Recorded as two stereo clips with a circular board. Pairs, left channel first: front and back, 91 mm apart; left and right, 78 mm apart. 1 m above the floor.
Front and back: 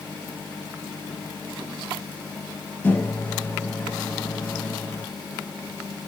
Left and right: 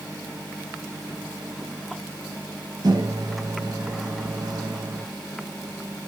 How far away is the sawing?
No sawing in this recording.